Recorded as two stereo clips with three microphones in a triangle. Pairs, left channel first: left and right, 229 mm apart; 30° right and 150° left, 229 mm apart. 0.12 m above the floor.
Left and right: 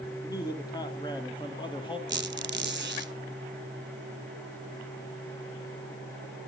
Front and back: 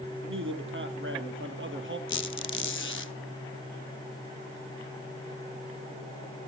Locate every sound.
0.2 s a man speaking: 160° left, 4 m; by 2.0 s 155° left, 3.5 m
2.1 s a squeak: 55° right, 0.6 m